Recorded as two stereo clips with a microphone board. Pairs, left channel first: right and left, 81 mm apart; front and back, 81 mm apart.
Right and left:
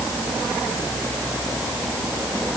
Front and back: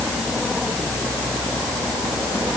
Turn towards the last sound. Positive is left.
No sound to turn to.